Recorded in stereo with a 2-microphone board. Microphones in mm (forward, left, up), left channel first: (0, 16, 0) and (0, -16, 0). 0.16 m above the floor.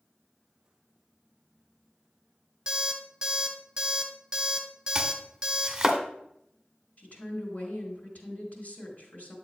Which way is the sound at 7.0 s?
55° left (ahead or behind).